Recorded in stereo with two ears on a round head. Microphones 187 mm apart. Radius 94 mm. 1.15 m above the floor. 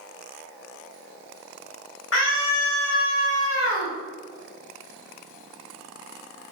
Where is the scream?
65° left (ahead or behind), 2.5 m; by 4.0 s 50° left (ahead or behind), 1.8 m.